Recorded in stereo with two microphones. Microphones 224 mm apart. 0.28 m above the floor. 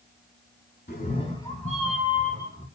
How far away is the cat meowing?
About 1.0 m.